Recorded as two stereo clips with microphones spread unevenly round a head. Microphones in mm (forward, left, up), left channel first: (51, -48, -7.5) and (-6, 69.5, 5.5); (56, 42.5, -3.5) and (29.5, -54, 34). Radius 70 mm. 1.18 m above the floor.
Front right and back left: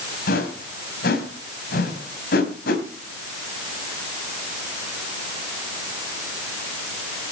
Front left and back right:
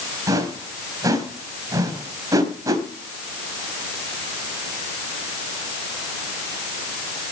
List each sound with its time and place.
0.3 s a whoosh: 55° right, 4 m